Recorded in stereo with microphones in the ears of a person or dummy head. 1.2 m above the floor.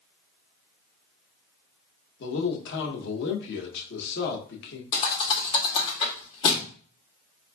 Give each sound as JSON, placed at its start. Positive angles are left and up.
{"t": 2.2, "sound": "a man speaking", "side_deg": 60, "distance_m": 0.9}
{"t": 4.9, "sound": "a thud", "side_deg": 30, "distance_m": 0.9}